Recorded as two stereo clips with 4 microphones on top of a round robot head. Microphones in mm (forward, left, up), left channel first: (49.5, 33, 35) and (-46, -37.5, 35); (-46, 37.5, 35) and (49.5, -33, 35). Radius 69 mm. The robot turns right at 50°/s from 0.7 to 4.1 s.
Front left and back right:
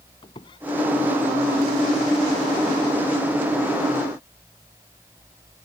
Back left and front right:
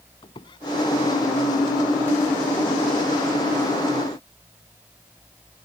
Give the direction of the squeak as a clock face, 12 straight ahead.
9 o'clock.